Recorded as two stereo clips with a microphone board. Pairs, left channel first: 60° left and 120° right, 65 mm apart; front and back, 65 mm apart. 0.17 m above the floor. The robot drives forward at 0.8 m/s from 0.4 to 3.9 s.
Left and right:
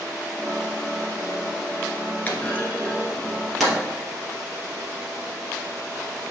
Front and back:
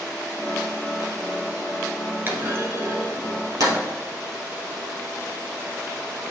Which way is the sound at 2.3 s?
125° left.